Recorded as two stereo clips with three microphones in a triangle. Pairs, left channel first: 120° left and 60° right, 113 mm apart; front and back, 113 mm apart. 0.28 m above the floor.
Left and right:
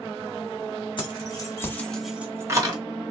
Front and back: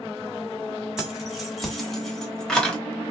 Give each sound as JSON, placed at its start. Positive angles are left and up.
{"t": 1.0, "sound": "keys jangling", "azimuth_deg": 95, "distance_m": 1.2}